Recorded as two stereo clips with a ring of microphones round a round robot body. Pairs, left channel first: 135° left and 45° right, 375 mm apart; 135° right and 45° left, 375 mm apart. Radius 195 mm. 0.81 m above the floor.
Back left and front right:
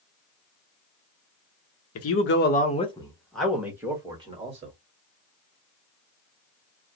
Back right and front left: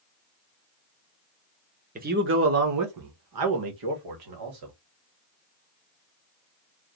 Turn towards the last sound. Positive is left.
turn(degrees=25)